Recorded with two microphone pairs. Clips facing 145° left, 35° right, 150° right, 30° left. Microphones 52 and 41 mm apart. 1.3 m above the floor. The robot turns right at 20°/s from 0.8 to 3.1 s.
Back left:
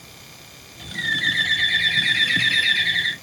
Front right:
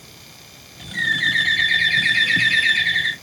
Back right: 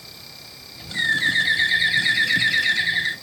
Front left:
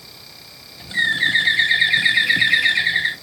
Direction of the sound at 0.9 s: 30° right.